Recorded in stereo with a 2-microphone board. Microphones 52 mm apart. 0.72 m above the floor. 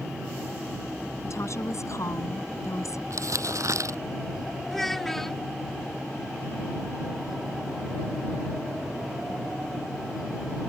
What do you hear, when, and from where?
1.2 s a woman speaking: 70° left (ahead or behind); by 3.0 s 80° left
3.1 s crumpling: 85° right
4.7 s a child speaking: 5° left (ahead or behind)